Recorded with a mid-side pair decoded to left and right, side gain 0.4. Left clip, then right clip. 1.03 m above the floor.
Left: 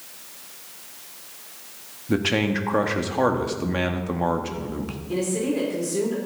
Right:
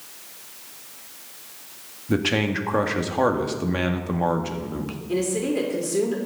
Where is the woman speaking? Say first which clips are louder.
Right 1 dB; 25° right, 3 m.